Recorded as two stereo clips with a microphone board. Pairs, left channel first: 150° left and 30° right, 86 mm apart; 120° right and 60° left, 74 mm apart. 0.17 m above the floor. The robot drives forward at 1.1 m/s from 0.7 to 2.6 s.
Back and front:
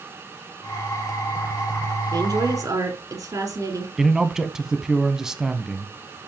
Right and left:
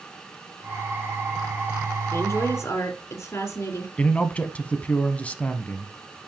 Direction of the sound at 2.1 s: 65° right.